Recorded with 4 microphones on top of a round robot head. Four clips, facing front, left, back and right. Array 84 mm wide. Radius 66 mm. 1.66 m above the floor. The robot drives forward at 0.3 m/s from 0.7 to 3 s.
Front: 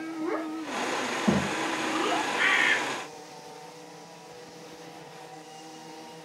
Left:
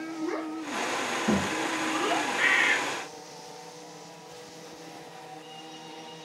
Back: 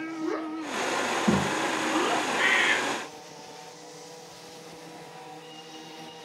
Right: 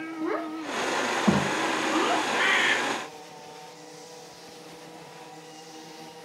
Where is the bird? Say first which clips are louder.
Left 1 dB, even; 95° right, 1.9 m; by 2.8 s 100° right, 1.9 m.